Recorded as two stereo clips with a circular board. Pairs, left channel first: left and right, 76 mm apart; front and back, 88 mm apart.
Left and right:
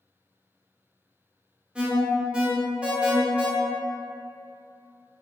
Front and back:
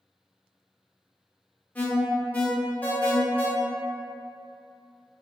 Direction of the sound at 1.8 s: 35° right.